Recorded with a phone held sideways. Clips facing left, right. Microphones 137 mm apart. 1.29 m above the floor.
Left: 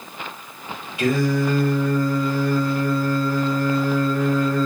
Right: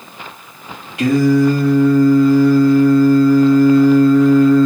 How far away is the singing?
About 2.5 m.